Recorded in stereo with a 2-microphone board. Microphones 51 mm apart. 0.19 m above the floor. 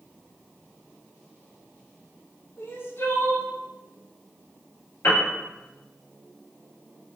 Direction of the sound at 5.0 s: 60° left (ahead or behind).